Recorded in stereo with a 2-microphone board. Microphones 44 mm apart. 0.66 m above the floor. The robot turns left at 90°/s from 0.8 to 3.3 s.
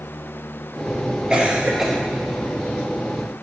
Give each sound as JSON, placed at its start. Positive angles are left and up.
{"t": 1.3, "sound": "a cough", "side_deg": -20, "distance_m": 1.2}